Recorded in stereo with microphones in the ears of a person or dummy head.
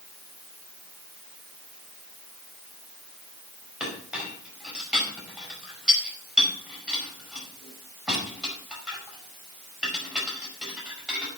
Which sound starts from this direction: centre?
A clink, at 3.8 s.